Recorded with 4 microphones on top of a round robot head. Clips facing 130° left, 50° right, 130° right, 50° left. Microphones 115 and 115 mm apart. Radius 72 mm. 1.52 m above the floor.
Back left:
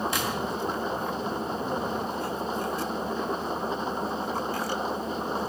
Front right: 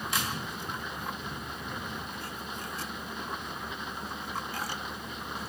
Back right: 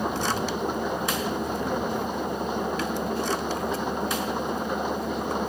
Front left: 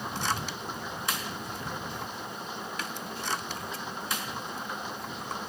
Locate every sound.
0.0 s an engine running: 170° right